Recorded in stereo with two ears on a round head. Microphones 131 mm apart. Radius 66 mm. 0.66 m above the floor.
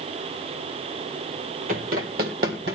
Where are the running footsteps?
60° right (ahead or behind), 1.3 m; by 2.8 s 70° right (ahead or behind), 1.8 m.